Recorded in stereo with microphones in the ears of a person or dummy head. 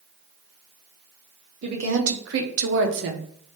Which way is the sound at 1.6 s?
55° right (ahead or behind).